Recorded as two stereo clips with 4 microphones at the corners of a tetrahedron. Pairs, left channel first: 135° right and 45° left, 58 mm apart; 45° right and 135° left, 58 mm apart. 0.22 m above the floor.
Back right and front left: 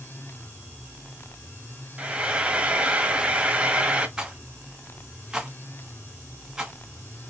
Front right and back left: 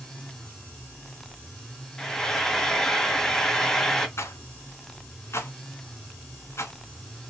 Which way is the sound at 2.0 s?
25° left.